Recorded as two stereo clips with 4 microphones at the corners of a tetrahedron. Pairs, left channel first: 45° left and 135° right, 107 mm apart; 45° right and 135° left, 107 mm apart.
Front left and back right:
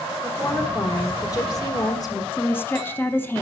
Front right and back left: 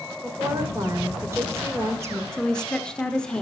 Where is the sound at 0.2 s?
85° left, 1.5 m.